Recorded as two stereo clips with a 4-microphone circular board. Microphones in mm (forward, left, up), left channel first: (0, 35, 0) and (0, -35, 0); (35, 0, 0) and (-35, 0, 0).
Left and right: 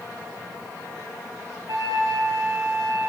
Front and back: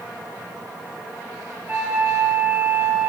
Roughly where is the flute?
Behind right.